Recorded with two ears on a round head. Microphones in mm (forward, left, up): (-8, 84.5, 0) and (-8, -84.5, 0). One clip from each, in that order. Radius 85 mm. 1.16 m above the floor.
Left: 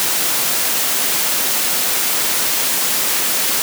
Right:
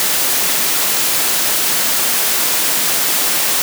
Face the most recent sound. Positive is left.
No sound to turn to.